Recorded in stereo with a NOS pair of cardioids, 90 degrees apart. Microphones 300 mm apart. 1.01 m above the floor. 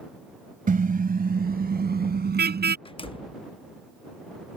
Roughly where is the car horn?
Ahead right.